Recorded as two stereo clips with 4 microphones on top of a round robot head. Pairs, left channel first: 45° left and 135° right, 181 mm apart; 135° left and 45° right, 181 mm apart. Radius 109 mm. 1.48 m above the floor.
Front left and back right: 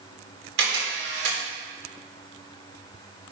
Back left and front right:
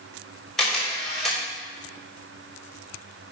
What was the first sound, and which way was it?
A camera shutter, 135° right.